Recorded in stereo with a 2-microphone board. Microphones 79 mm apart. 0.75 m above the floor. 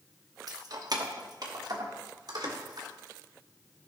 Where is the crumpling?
No crumpling in this recording.